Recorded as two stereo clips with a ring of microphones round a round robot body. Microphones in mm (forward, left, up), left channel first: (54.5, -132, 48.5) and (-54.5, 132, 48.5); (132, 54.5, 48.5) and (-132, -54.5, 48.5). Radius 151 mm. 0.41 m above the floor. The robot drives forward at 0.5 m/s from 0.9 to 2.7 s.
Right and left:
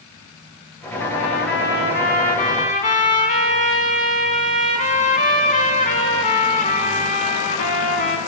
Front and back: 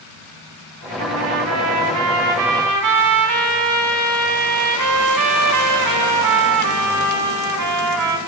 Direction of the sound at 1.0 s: 110° right.